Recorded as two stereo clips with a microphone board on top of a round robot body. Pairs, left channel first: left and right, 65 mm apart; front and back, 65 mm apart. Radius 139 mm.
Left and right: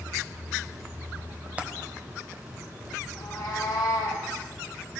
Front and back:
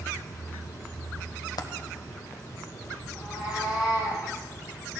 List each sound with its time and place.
1.6 s a dropped coin: 20° right, 0.9 m
3.1 s a cat meowing: 105° left, 6.5 m